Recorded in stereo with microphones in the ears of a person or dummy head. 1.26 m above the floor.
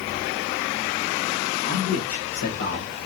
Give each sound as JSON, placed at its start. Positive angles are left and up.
{"t": 1.6, "sound": "a man speaking", "side_deg": 65, "distance_m": 2.5}